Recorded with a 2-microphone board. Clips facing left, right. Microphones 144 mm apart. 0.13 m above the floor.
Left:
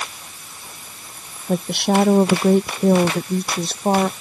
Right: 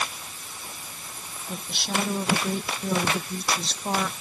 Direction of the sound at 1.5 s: 70° left (ahead or behind).